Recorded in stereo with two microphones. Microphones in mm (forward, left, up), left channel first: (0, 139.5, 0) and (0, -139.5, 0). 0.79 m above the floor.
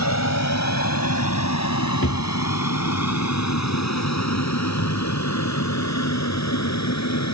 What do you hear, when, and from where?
0.0 s an aircraft: 70° left (ahead or behind)
2.0 s a drawer: 50° left (ahead or behind)